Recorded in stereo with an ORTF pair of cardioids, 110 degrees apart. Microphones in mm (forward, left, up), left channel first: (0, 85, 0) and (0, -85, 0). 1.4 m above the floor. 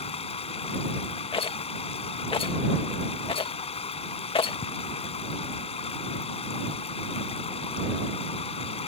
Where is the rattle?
30° left.